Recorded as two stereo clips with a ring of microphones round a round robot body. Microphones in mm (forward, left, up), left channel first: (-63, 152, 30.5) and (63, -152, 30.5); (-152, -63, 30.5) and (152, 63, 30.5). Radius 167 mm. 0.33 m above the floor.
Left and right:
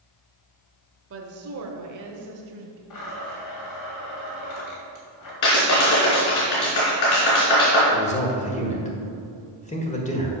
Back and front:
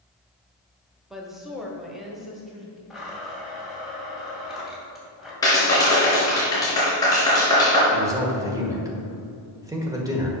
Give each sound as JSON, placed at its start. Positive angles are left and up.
{"t": 1.1, "sound": "a woman speaking", "azimuth_deg": -65, "distance_m": 1.2}
{"t": 2.9, "sound": "a blender", "azimuth_deg": 110, "distance_m": 2.5}
{"t": 5.4, "sound": "a clap", "azimuth_deg": 125, "distance_m": 3.5}
{"t": 7.9, "sound": "a man speaking", "azimuth_deg": 85, "distance_m": 1.6}